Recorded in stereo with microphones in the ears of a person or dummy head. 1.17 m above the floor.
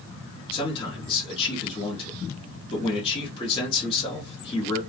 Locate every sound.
0.5 s a man speaking: 25° left (ahead or behind), 1.0 m